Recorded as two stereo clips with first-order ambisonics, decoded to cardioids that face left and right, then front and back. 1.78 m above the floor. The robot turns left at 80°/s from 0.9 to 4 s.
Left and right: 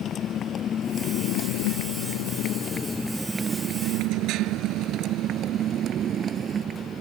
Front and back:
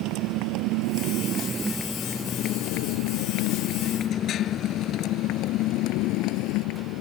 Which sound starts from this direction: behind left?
A motorcycle, at 0.0 s.